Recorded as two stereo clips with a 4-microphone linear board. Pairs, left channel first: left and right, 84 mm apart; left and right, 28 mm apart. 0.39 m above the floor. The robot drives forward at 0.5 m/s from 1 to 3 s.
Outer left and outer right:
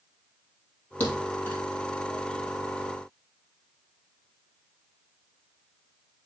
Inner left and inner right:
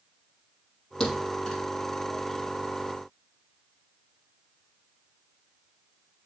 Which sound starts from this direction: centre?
A thud, at 1.0 s.